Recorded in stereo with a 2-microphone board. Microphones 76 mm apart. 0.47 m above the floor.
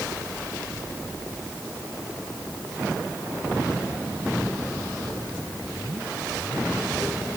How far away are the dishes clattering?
I don't hear dishes clattering.